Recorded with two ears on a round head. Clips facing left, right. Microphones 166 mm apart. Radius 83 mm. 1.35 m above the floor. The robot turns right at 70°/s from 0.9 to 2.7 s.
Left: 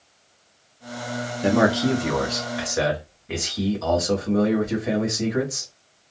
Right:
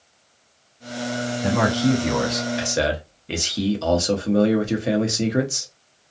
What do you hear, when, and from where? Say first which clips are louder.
1.4 s a man speaking: left 1 dB; 130° left, 1.1 m; by 5.7 s 140° right, 1.1 m